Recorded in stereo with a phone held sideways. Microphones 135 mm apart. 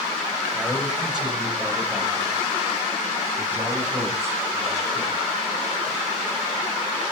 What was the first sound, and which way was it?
A man speaking, centre (ahead or behind).